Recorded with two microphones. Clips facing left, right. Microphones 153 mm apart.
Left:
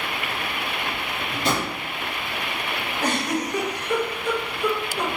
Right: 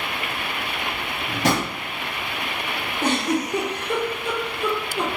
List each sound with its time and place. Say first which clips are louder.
1.3 s a drawer: right 3 dB; 80° right, 0.9 m
3.0 s a giggle: right 3 dB; 25° right (ahead or behind), 1.4 m